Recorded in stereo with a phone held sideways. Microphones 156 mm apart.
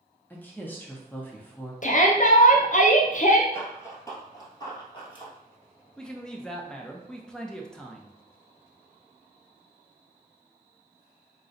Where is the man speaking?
5° left (ahead or behind), 0.8 m.